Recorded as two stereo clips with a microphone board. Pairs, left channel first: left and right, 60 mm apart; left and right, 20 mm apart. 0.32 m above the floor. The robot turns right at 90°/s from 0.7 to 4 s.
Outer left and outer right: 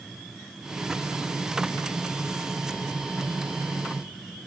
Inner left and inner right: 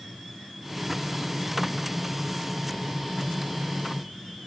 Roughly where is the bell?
I don't hear a bell.